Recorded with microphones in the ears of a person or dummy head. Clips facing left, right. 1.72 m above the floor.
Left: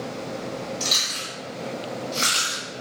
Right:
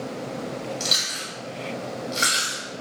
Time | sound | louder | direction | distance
0.8 | chewing | even | 15° right (ahead or behind) | 1.4 m